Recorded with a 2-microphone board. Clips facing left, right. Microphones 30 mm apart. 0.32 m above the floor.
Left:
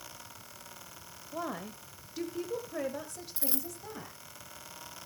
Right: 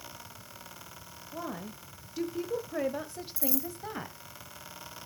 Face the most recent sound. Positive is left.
turn(degrees=45)  # may be behind; listen again after turning